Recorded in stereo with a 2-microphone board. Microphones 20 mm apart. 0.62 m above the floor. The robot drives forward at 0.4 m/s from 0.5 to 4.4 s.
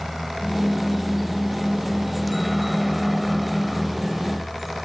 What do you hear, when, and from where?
0.0 s a helicopter: 5° right (ahead or behind); by 4.8 s centre (ahead or behind)